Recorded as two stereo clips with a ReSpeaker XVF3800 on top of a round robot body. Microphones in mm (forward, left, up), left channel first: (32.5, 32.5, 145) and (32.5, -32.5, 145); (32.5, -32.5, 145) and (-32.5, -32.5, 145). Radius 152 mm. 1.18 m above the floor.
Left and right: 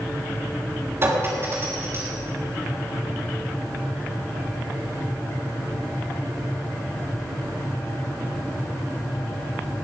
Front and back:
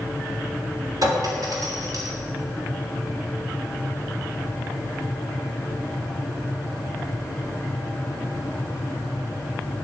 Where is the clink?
145° right, 3 m.